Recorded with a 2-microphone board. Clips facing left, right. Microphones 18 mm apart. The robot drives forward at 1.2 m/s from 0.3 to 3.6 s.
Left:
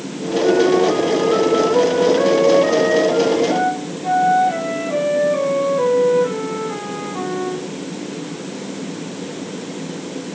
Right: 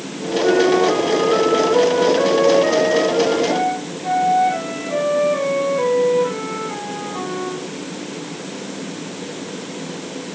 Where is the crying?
No crying in this recording.